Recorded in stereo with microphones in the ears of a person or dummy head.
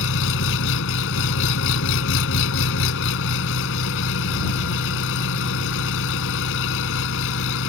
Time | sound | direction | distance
0.0 | an engine running | 75° left (ahead or behind) | ?